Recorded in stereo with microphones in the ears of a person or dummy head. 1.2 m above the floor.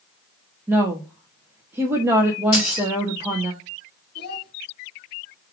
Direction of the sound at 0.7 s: 10° right (ahead or behind).